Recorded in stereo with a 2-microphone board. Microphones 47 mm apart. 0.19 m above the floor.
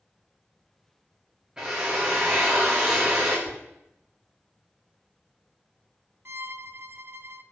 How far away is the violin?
About 0.7 m.